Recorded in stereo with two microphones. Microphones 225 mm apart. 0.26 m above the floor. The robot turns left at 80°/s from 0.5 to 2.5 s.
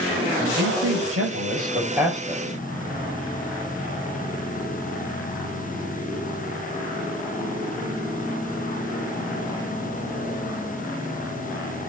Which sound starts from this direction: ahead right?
A man speaking, at 0.4 s.